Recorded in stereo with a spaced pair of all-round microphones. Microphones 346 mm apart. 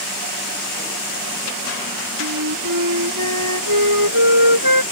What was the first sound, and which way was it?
A flute, 65° right (ahead or behind).